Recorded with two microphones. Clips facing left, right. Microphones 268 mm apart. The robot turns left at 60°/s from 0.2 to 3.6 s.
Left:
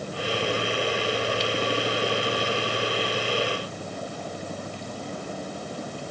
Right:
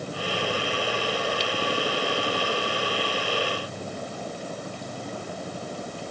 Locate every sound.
Only background noise.